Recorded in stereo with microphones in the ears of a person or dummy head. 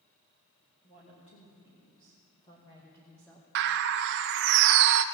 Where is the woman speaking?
30° left (ahead or behind), 3 m; by 3.5 s centre (ahead or behind), 1.2 m.